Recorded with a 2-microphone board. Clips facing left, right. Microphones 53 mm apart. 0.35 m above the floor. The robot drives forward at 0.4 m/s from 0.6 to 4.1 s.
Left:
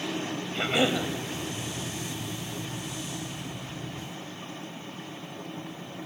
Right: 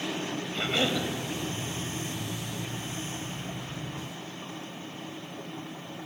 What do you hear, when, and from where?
0.6 s a cough: 15° left (ahead or behind), 1.9 m